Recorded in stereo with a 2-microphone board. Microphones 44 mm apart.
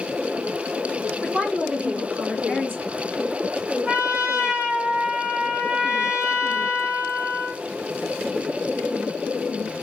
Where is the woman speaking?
45° right (ahead or behind), 2 m.